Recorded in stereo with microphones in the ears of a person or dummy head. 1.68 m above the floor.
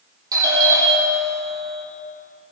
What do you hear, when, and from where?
0.3 s a doorbell: 20° right (ahead or behind), 4 m